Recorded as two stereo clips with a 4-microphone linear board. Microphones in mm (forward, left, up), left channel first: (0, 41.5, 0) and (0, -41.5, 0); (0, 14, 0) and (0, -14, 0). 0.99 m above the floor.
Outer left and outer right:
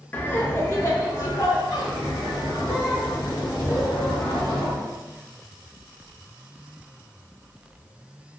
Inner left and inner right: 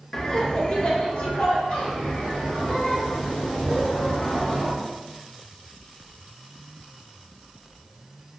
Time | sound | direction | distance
0.1 | laughter | 20° left (ahead or behind) | 0.6 m